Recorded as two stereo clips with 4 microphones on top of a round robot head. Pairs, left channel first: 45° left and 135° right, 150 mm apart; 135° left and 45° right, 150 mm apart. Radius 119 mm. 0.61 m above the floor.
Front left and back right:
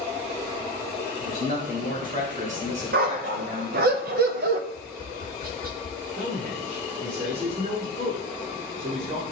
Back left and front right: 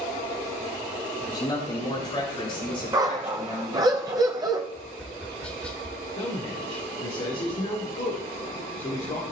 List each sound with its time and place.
1.2 s a man speaking: 160° right, 5 m; by 3.9 s straight behind, 3 m
2.9 s a dog barking: 110° right, 0.7 m
4.7 s tapping: 145° right, 1.8 m
6.2 s a man speaking: 175° right, 2.5 m